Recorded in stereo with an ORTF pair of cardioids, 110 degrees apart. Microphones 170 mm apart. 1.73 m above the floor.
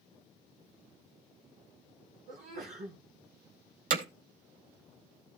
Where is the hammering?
55° right, 2.5 m.